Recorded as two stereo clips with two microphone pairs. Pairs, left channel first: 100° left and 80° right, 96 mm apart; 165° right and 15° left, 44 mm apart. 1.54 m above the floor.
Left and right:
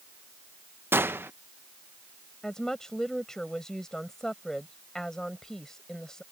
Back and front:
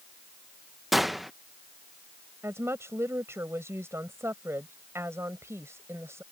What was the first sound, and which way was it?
A gunshot, 70° right.